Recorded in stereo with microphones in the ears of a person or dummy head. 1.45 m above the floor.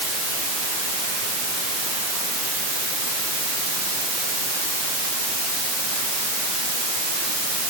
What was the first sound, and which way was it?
Only background noise.